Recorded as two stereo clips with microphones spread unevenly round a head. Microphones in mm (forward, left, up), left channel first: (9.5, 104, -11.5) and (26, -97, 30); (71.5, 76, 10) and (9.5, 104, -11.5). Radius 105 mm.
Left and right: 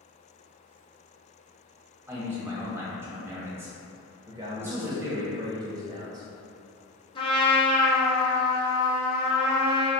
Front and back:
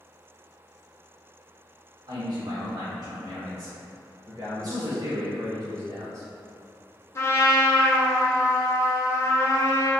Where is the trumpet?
35° left, 0.9 m.